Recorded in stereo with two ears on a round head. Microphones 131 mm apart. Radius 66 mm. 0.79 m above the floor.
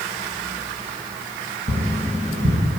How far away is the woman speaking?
I don't hear a woman speaking.